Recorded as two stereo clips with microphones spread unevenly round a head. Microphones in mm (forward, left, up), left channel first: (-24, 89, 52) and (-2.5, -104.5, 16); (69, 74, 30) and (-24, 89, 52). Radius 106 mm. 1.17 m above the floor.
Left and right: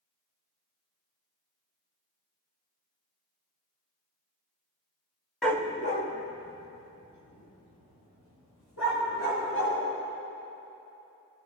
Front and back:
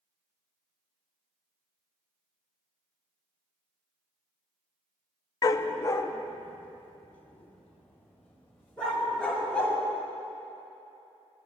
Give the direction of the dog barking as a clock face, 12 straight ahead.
11 o'clock.